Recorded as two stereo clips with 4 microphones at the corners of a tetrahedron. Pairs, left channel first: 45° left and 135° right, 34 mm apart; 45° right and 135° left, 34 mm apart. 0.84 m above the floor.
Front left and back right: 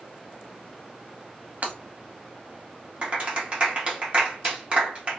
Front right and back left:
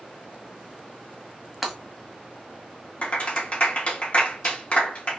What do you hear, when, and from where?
1.6 s breaking glass: 145° right, 1.0 m
3.0 s a clap: 85° right, 1.1 m